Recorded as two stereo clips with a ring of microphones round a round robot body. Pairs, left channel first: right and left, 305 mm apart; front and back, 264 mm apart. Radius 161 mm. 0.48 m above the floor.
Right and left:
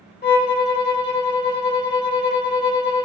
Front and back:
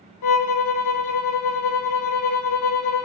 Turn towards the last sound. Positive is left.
turn(degrees=-25)